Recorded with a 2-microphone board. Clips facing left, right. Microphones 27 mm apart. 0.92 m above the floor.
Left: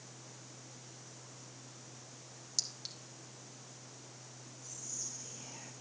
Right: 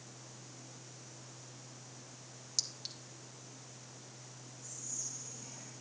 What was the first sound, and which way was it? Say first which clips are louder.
A clink: right 1 dB; 5° right (ahead or behind).